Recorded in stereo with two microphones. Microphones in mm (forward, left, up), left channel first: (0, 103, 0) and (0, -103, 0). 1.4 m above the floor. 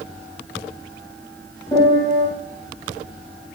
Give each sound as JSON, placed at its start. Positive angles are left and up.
{"t": 1.7, "sound": "a piano", "side_deg": 20, "distance_m": 3.0}